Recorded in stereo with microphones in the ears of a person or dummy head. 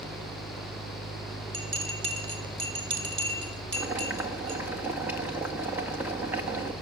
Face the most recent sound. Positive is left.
turn(degrees=-10)  # may be behind; listen again after turning